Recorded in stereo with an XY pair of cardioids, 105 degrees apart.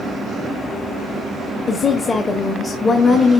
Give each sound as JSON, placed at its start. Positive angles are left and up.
{"t": 1.7, "sound": "a woman speaking", "azimuth_deg": 45, "distance_m": 1.5}